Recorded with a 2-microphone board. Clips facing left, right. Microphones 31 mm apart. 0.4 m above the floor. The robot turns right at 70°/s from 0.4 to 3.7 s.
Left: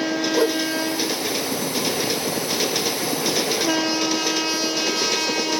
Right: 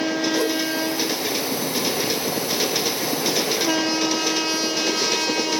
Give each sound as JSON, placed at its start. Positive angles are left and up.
{"t": 0.3, "sound": "a whoosh", "side_deg": 30, "distance_m": 1.5}